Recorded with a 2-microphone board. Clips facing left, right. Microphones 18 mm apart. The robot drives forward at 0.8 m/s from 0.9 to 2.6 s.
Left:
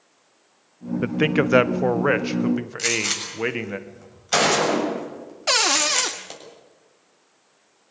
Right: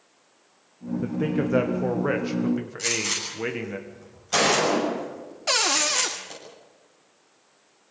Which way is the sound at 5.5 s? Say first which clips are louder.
Left 3 dB; 20° left (ahead or behind).